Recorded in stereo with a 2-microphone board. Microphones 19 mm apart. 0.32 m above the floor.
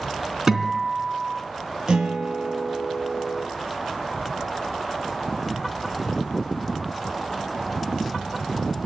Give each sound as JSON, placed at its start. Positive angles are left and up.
{"t": 0.5, "sound": "a guitar", "side_deg": -25, "distance_m": 3.0}
{"t": 1.9, "sound": "a guitar", "side_deg": -50, "distance_m": 5.0}